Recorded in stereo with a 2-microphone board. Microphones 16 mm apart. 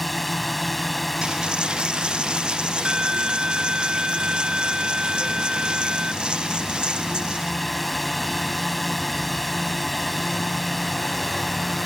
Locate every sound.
0.0 s a drone: 5° left (ahead or behind)
1.2 s a dropped coin: 85° right